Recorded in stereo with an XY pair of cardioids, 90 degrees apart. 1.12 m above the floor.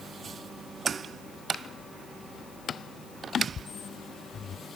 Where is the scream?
No scream in this recording.